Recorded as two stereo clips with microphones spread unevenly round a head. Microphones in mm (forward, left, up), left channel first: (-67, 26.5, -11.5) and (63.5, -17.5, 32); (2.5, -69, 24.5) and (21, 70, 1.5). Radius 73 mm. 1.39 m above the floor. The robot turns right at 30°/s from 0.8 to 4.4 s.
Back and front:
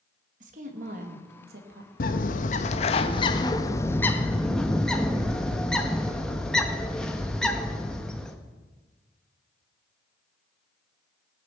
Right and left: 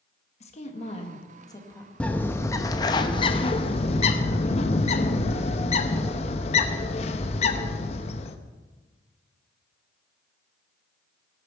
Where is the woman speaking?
55° right, 1.8 m; by 1.9 s 20° right, 1.8 m.